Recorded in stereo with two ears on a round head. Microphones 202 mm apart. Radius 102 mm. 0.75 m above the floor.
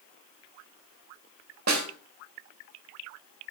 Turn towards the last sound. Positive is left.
turn(degrees=-60)  # may be behind; listen again after turning